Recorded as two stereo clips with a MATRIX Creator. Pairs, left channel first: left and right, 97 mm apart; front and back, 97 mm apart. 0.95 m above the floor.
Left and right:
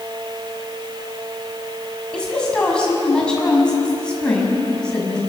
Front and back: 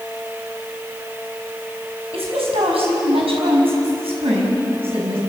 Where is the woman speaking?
170° left, 6.5 m.